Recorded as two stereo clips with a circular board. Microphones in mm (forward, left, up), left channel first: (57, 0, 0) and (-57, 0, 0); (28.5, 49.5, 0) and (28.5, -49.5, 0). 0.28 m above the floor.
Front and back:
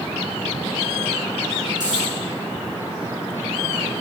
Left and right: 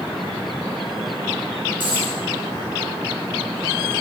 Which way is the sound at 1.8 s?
125° right.